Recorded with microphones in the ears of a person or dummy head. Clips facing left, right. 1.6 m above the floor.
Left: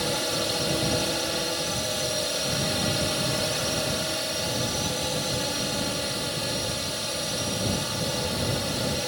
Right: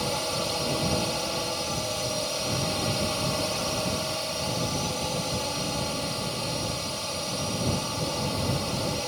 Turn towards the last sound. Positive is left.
turn(degrees=15)  # may be behind; listen again after turning